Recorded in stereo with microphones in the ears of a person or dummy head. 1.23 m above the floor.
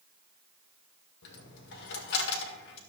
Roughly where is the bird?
No bird in this recording.